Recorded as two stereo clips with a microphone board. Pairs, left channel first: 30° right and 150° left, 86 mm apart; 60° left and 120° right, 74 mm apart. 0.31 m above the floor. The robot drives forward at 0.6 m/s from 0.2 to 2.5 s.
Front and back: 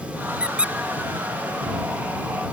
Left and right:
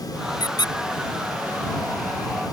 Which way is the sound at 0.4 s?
70° left.